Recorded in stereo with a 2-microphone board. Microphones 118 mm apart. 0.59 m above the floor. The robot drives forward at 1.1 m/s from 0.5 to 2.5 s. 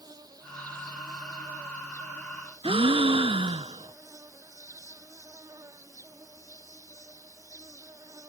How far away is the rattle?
No rattle in this recording.